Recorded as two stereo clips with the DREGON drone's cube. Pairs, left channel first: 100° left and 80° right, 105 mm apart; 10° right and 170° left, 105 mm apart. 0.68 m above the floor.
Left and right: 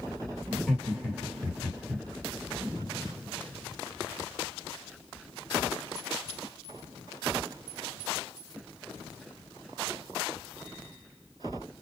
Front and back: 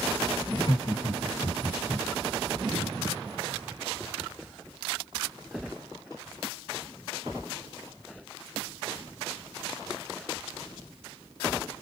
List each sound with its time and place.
0.5 s laughter: 10° left, 1.5 m